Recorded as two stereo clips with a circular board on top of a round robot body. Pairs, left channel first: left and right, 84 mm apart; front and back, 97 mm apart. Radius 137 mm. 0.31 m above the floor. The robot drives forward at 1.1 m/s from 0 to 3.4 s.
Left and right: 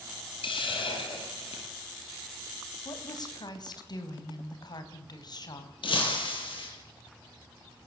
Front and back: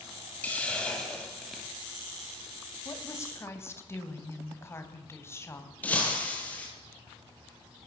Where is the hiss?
75° left, 4.5 m; by 1.7 s 90° left, 4.5 m.